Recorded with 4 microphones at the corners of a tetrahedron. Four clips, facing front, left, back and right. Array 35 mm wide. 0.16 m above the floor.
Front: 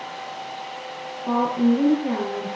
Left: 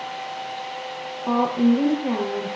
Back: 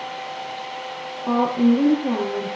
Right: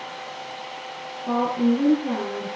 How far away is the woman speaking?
About 4 m.